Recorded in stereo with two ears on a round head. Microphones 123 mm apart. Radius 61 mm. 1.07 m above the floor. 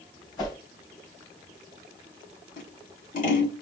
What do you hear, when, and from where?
0.4 s a whoosh: 35° left (ahead or behind), 2.5 m
2.6 s scissors: 60° left (ahead or behind), 2.5 m